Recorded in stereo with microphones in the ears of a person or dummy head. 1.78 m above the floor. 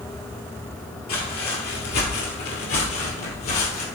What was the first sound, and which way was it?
Footsteps, 45° left (ahead or behind).